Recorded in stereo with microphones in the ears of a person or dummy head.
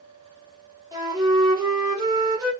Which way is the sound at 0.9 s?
20° right (ahead or behind).